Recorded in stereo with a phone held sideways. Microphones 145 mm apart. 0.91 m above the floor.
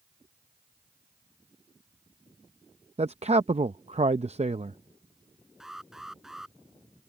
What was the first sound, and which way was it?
A man speaking, 50° right (ahead or behind).